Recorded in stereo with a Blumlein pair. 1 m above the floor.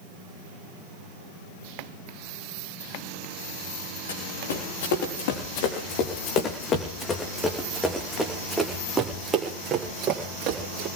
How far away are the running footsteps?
About 4 m.